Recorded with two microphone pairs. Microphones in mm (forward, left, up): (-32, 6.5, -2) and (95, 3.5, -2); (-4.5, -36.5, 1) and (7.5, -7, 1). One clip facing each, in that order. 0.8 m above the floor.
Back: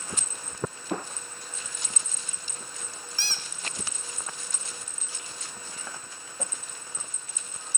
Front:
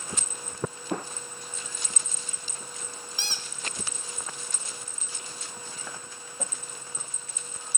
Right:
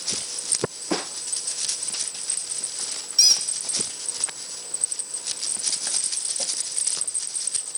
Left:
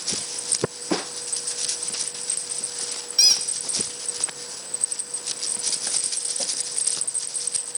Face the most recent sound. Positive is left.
turn(degrees=40)